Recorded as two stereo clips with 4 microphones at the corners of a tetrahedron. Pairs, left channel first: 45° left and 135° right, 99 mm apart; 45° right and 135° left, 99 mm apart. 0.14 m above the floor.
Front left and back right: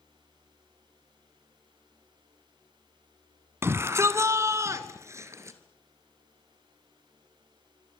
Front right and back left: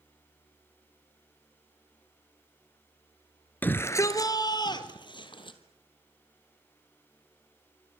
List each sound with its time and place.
3.6 s a shout: 95° right, 1.4 m; by 5.6 s 75° right, 3 m